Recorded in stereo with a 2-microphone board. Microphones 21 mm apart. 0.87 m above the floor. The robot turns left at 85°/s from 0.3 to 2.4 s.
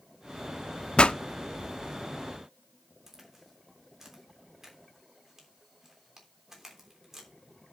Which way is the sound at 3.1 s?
15° right (ahead or behind).